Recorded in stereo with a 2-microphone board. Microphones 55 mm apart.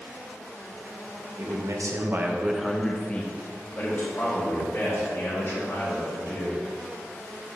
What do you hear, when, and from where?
1.4 s a man speaking: 80° right, 1.3 m; by 6.6 s 50° left (ahead or behind), 5 m